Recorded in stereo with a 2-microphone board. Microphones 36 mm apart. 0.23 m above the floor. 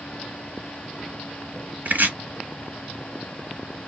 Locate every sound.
1.9 s chopping: 55° right (ahead or behind), 0.7 m